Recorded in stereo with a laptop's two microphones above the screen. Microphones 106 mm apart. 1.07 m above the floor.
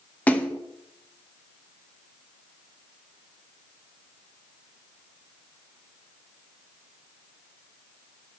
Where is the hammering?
I don't hear hammering.